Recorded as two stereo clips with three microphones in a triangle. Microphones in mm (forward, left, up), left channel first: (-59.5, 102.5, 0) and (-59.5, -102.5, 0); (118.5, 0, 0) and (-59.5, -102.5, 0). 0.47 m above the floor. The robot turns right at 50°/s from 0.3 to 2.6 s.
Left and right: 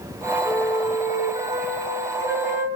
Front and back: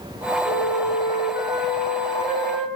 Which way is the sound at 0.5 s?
5° left.